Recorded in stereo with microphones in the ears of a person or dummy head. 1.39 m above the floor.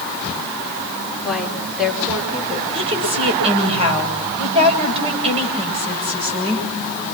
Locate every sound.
1.2 s a woman speaking: centre (ahead or behind), 5 m; by 2.6 s 10° right (ahead or behind), 5 m
2.7 s a woman speaking: 30° right (ahead or behind), 9 m